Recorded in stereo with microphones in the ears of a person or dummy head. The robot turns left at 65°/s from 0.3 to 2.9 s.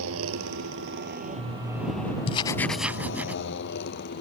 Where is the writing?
35° left; by 3.4 s 10° right.